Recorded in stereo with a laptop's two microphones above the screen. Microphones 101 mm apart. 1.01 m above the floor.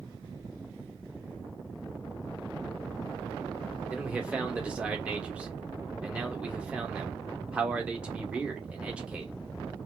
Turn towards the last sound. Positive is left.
turn(degrees=-10)  # may be behind; listen again after turning